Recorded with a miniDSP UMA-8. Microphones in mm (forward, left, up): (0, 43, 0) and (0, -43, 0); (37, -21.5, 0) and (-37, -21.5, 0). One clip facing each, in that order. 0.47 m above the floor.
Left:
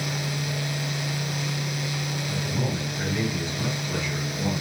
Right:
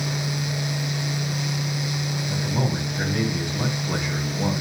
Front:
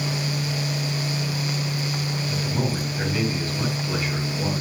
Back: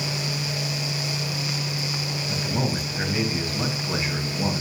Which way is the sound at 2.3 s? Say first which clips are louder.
Right 3 dB, back 1 dB; 110° right.